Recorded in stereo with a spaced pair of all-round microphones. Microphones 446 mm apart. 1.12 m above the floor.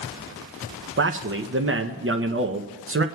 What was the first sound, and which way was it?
A man speaking, 30° right (ahead or behind).